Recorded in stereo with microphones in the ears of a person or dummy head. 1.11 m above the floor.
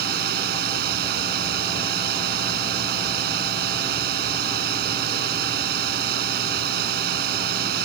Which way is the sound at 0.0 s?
60° right (ahead or behind).